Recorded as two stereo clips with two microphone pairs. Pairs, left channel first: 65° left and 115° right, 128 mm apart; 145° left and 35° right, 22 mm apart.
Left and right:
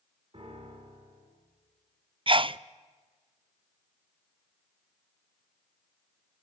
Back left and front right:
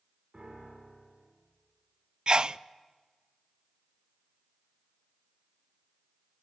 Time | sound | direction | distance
0.3 | a piano | 75° right | 8 m
2.3 | a sneeze | 80° right | 0.6 m